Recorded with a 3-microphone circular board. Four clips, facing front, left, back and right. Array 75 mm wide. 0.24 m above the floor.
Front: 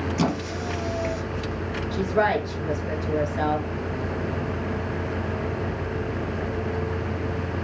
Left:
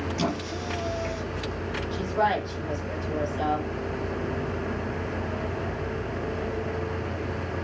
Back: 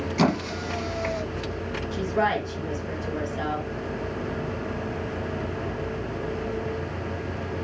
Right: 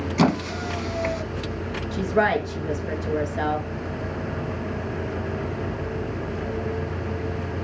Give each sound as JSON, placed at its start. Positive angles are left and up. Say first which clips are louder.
{"t": 0.2, "sound": "a squeak", "louder": "right 11 dB, back 5 dB", "azimuth_deg": -110, "distance_m": 1.6}
{"t": 1.9, "sound": "a woman speaking", "louder": "right 4 dB, front 2 dB", "azimuth_deg": -70, "distance_m": 4.0}